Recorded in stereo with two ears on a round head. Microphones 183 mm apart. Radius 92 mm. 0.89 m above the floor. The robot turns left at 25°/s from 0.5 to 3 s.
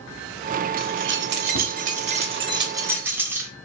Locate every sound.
0.8 s keys jangling: 115° right, 0.9 m; by 3.5 s 170° right, 0.9 m